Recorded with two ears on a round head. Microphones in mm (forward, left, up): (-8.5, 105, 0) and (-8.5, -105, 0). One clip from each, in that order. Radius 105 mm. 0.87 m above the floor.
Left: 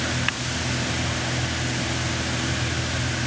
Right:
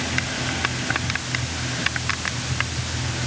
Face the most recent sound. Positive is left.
No sound to turn to.